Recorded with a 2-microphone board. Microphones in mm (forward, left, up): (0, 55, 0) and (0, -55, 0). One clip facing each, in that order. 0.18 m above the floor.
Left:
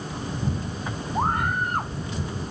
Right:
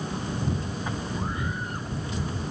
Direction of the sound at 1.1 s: 60° left (ahead or behind).